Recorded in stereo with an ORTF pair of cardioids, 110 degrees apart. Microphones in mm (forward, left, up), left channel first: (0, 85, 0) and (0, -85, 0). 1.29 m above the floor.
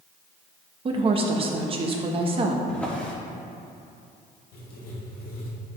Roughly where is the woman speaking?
Ahead right.